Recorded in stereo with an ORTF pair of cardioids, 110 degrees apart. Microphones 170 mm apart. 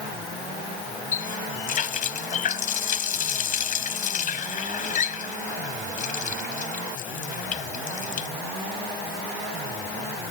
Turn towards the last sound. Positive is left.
turn(degrees=50)